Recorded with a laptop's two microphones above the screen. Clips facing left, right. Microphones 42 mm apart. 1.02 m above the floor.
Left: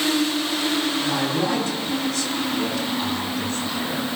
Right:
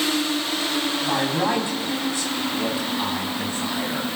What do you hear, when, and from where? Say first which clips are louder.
1.0 s a man speaking: even; 25° right (ahead or behind), 5.5 m; by 4.1 s 15° right (ahead or behind), 6.5 m